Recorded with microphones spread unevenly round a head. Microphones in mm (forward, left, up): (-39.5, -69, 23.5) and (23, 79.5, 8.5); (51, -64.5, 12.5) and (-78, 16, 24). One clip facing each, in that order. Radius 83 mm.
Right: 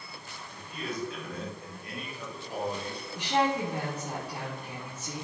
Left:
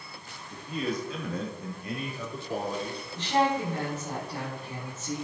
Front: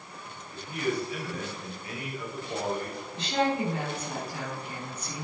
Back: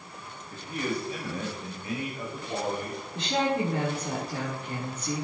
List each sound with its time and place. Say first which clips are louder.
0.5 s a man speaking: left 6 dB, front 1 dB; 90° left, 2 m; by 3.0 s 70° left, 3.5 m
3.1 s a woman speaking: left 2 dB, even; 165° left, 3 m